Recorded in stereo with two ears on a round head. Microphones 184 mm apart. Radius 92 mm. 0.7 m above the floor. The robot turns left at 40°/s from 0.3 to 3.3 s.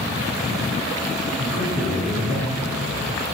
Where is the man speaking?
130° left, 4.5 m; by 3.2 s 60° left, 4.5 m.